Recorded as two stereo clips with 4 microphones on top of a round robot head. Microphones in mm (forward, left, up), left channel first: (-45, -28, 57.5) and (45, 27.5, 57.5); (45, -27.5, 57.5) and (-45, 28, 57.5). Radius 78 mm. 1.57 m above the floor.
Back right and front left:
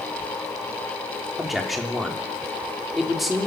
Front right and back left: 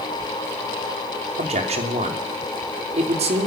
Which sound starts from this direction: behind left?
A man speaking, at 1.4 s.